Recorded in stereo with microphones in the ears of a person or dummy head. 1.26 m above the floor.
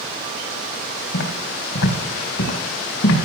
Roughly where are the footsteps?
Left.